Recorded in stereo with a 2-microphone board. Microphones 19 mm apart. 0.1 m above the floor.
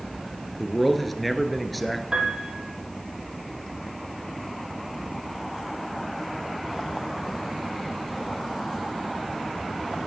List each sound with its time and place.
0.6 s a man speaking: centre (ahead or behind), 1.3 m
2.1 s a piano: 35° right (ahead or behind), 3 m